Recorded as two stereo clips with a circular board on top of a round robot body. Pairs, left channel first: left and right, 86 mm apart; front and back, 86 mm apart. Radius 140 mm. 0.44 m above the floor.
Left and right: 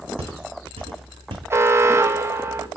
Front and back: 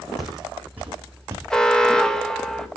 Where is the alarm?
75° right, 1.3 m.